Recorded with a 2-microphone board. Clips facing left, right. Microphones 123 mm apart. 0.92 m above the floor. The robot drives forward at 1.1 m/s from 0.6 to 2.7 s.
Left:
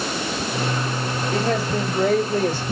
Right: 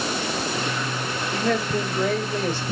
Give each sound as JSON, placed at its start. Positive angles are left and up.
{"t": 1.3, "sound": "a man speaking", "side_deg": 30, "distance_m": 5.0}